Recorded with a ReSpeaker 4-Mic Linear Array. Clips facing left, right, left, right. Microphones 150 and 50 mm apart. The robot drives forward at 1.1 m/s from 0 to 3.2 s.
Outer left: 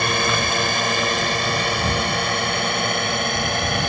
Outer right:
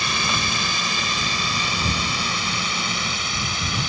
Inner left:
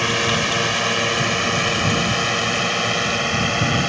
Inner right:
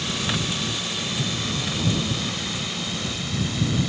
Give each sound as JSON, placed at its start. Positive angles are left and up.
{"t": 0.0, "sound": "a drone", "side_deg": 55}